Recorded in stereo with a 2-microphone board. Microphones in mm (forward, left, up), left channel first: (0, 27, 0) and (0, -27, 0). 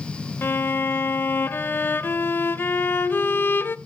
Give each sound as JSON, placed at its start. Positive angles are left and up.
{"t": 0.4, "sound": "a violin", "side_deg": 40, "distance_m": 0.6}